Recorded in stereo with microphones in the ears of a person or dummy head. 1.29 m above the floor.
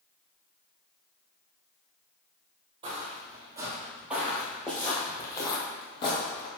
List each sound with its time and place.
2.8 s footsteps: 35° right (ahead or behind), 1.9 m; by 6.5 s 30° left (ahead or behind), 2.5 m